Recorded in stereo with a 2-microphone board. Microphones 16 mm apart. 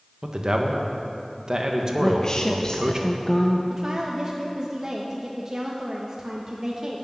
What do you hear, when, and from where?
0.2 s a man speaking: 35° right (ahead or behind), 1.4 m
2.0 s a woman speaking: 45° left (ahead or behind), 0.7 m
3.7 s a woman speaking: 25° right (ahead or behind), 1.3 m